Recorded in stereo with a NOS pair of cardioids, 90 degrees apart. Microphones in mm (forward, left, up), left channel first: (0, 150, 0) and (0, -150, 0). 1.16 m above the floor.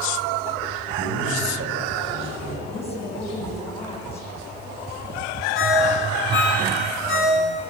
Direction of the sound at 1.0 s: 45° right.